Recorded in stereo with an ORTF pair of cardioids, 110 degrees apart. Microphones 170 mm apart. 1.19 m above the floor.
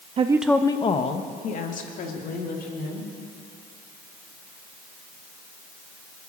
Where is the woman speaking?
35° right, 0.6 m; by 3.1 s 60° left, 3.5 m.